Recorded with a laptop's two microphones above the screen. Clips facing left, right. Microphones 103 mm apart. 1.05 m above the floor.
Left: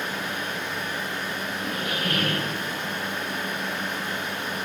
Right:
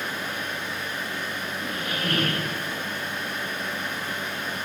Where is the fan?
60° left (ahead or behind), 0.8 m.